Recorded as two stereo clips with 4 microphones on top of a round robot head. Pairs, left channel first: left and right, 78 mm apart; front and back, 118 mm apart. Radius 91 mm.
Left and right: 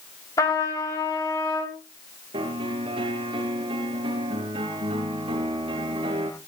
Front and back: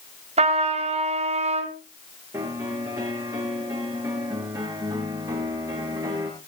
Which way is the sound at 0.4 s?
150° left.